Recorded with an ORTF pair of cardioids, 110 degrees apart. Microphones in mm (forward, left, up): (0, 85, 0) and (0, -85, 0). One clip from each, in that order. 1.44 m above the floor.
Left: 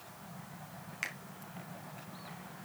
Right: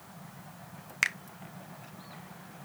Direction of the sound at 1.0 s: 50° right.